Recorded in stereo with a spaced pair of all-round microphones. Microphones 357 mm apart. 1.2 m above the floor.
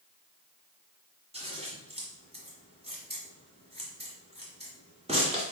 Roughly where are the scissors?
Centre.